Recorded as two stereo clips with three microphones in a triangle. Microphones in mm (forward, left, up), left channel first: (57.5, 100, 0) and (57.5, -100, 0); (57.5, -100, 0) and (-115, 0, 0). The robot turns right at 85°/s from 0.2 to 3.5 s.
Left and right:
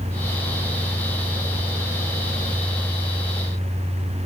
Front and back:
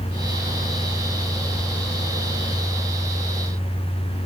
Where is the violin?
I don't hear a violin.